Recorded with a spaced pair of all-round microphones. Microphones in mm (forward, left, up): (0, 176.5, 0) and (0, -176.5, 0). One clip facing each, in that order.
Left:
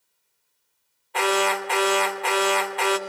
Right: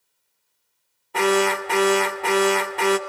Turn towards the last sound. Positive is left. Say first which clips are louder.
# right 4 dB
turn(degrees=-55)  # may be behind; listen again after turning